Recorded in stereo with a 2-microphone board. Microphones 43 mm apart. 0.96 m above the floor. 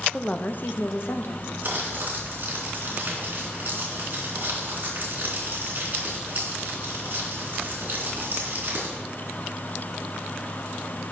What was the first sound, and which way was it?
A woman speaking, 15° left (ahead or behind).